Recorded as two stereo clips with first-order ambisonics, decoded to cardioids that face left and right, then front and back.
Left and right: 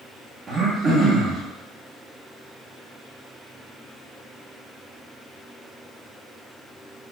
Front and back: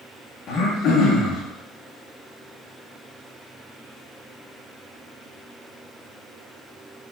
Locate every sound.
0.5 s throat clearing: 25° right, 0.5 m